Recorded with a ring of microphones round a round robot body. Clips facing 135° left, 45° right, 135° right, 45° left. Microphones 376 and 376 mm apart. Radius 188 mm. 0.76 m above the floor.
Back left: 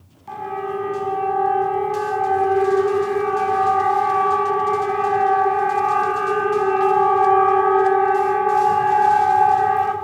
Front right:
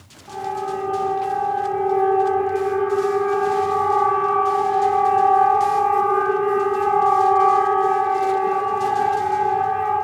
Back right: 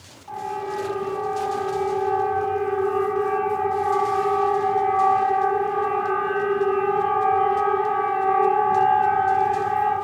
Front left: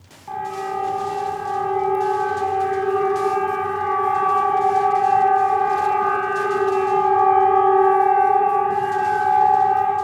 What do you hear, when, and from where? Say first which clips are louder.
0.3 s a siren: back left 1 dB, front left 1 dB; 70° left, 9.5 m; by 9.9 s 130° left, 8 m